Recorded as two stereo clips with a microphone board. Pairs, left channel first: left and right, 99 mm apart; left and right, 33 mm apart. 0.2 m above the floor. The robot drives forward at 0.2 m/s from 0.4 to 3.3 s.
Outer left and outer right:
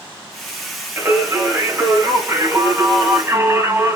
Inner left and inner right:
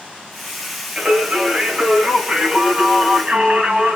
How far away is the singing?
About 1.7 m.